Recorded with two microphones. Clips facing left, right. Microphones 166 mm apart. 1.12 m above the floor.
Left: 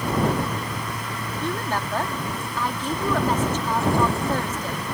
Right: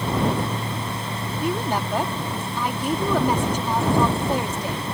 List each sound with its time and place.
1.4 s a woman speaking: 15° right (ahead or behind)